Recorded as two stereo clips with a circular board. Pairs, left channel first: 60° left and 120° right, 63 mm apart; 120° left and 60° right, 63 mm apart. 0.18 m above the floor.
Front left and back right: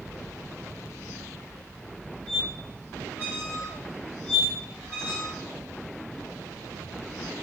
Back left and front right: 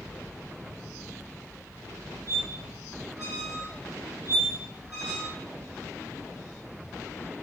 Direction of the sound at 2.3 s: 130° left.